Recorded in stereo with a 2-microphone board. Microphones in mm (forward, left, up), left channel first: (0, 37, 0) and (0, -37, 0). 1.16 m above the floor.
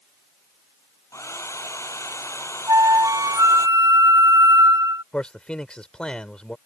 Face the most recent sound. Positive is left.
turn(degrees=15)  # may be behind; listen again after turning